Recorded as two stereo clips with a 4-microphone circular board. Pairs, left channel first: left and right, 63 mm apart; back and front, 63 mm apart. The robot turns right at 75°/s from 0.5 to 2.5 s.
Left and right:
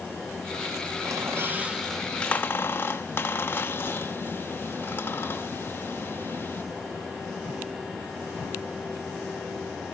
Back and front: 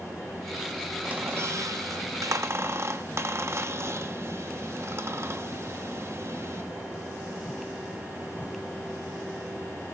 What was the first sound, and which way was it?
A squeak, 70° right.